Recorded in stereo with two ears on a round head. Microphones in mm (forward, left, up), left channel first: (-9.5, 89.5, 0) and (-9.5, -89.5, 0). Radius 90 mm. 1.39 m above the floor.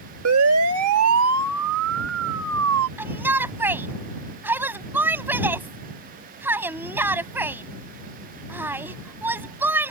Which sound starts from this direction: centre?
A shout, at 3.0 s.